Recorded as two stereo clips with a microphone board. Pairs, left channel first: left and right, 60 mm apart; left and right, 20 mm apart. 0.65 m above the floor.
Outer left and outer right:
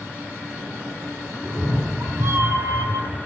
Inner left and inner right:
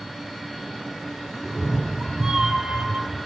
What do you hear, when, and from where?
1.4 s a cat meowing: 10° right (ahead or behind), 1.3 m; by 3.2 s 80° right, 1.1 m